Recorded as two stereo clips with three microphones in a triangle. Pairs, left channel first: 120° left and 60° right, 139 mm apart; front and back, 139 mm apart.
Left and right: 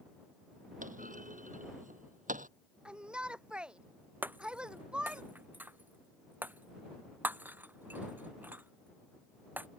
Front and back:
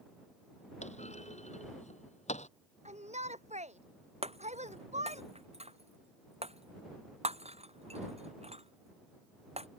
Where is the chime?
I don't hear a chime.